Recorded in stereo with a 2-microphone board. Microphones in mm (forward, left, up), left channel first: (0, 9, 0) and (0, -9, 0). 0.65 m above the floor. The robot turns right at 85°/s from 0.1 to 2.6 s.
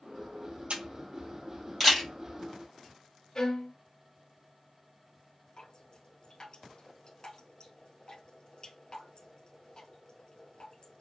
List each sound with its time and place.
0.7 s a camera shutter: 80° right, 2.5 m; by 2.1 s 25° left (ahead or behind), 2.5 m
3.4 s a violin: 45° left (ahead or behind), 1.7 m
5.6 s dripping: 45° left (ahead or behind), 1.9 m